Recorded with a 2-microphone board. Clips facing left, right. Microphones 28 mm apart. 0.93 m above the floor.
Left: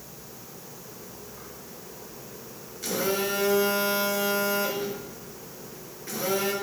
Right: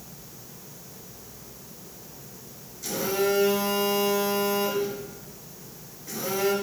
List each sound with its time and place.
2.8 s a phone buzzing: 55° left (ahead or behind), 1.0 m